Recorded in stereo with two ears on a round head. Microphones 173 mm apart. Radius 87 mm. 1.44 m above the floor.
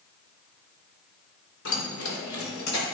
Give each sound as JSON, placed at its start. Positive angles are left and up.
{"t": 1.6, "sound": "keys jangling", "side_deg": 80, "distance_m": 3.0}